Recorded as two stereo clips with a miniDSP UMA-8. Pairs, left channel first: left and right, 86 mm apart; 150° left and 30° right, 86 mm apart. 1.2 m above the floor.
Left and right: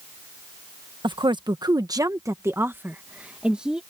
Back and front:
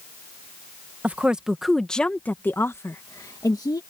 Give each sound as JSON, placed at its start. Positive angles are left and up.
{"t": 1.0, "sound": "a woman speaking", "azimuth_deg": -100}